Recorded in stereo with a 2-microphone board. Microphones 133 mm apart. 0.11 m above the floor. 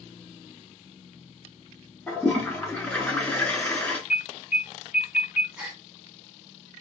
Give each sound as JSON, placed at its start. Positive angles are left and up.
{"t": 2.1, "sound": "a toilet flushing", "side_deg": 10, "distance_m": 1.0}
{"t": 4.1, "sound": "an alarm", "side_deg": -10, "distance_m": 1.8}
{"t": 5.6, "sound": "a gasp", "side_deg": -5, "distance_m": 1.0}